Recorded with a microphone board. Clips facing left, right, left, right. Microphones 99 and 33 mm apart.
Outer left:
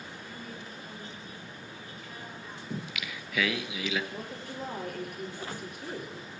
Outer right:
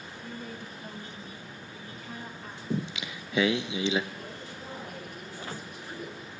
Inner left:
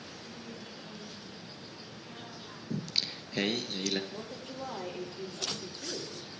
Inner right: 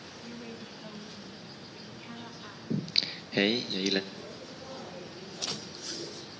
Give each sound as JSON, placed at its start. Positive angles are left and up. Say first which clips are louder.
{"t": 0.2, "sound": "a woman speaking", "louder": "outer right 6 dB, inner right 5 dB", "side_deg": -50, "distance_m": 2.5}
{"t": 2.7, "sound": "singing", "louder": "outer right 6 dB, inner right 3 dB", "side_deg": -30, "distance_m": 1.0}
{"t": 4.1, "sound": "a woman speaking", "louder": "outer left 2 dB, inner left 2 dB", "side_deg": 65, "distance_m": 8.5}